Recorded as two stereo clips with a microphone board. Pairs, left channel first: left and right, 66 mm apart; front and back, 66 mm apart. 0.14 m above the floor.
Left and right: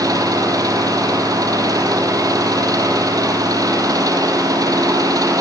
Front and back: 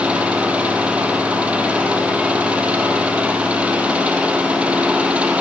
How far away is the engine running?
About 3.5 m.